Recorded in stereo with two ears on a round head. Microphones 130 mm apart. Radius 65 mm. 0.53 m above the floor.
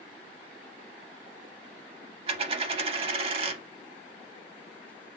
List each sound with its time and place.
2.3 s a dropped coin: 40° right (ahead or behind), 0.5 m